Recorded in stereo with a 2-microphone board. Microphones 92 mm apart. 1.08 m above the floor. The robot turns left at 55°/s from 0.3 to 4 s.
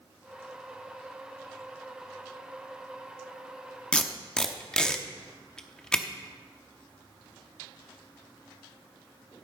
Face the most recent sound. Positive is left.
turn(degrees=10)  # may be behind; listen again after turning